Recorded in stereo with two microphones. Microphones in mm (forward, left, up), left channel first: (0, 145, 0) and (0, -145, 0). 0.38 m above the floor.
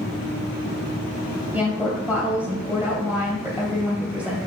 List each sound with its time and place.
1.5 s a woman speaking: 5° right (ahead or behind), 2 m